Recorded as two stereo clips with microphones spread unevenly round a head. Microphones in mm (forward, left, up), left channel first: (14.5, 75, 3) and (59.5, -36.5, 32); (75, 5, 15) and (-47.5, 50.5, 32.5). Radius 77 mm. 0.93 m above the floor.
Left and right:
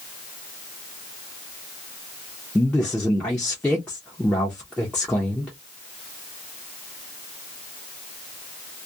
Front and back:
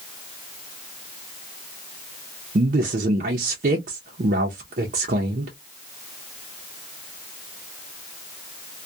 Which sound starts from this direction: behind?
A man speaking, at 2.5 s.